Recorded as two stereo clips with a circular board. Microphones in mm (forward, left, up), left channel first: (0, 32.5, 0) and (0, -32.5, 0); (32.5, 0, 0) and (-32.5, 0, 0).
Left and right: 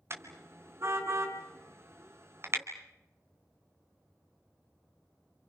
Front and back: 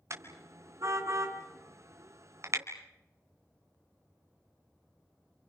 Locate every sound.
0.1 s a car horn: 135° right, 3 m